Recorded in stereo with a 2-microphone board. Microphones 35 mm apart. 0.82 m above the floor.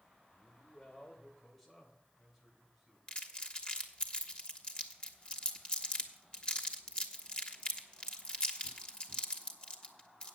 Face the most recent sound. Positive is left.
turn(degrees=25)  # may be behind; listen again after turning